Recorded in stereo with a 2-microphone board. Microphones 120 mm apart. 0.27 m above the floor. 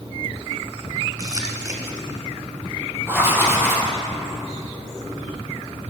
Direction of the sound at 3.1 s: 15° right (ahead or behind).